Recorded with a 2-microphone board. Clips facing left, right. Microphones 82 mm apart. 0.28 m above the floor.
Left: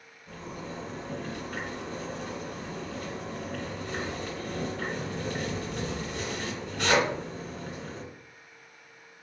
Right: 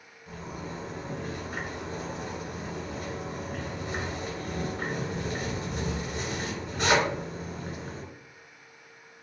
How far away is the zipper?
About 1.7 m.